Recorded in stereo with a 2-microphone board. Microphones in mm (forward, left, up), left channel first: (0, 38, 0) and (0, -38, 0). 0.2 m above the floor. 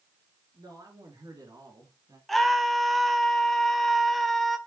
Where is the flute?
I don't hear a flute.